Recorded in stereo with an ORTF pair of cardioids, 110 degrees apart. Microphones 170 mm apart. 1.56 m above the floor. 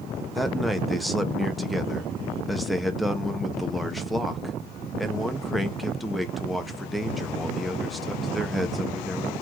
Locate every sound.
0.3 s a man speaking: straight ahead, 1.3 m